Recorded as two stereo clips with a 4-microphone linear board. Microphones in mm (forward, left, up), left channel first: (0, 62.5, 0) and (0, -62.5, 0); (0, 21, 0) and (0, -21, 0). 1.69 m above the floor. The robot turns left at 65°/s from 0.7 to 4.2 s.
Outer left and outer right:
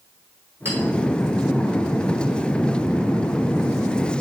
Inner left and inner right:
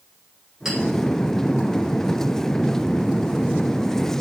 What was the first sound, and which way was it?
A clink, 20° right (ahead or behind).